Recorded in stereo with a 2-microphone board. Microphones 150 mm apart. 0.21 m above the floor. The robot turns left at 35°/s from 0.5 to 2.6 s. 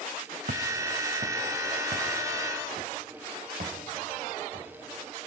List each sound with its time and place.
0.5 s footsteps: 70° right (ahead or behind), 1.0 m